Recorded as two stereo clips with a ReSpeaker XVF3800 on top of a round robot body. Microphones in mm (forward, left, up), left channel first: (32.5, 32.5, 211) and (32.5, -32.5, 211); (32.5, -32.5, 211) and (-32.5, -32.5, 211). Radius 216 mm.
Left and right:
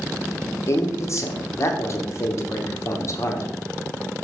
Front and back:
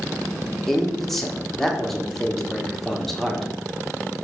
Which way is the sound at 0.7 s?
85° left.